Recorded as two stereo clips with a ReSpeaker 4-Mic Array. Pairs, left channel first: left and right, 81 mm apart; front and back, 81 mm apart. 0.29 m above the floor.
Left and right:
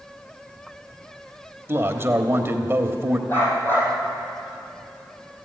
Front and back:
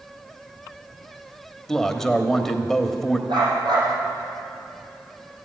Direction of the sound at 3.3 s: 155° left.